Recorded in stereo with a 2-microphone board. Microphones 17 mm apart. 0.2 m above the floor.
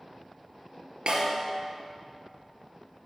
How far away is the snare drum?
About 2 m.